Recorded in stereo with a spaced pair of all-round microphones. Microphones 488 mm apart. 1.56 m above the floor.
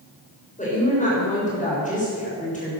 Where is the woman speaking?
15° left (ahead or behind), 6.5 m.